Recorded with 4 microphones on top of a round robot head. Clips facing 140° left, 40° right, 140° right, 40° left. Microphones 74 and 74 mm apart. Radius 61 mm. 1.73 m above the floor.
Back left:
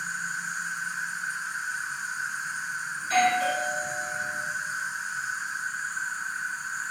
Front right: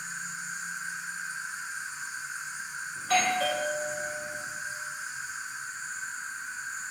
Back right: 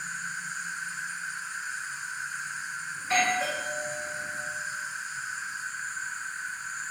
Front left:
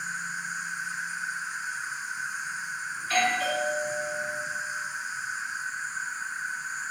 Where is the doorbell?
70° right, 3 m.